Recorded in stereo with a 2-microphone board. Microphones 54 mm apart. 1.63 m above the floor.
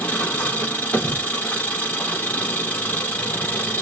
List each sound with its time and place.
0.0 s an engine running: 25° left (ahead or behind), 4 m